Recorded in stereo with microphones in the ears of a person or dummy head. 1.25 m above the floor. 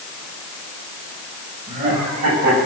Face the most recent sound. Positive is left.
turn(degrees=-45)  # may be behind; listen again after turning